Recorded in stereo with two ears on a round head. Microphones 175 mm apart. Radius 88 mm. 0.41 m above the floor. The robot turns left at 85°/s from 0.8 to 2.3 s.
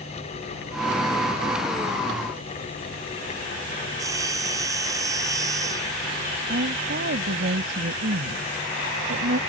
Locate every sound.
3.9 s sawing: 20° right (ahead or behind)
6.5 s a woman speaking: 55° right (ahead or behind)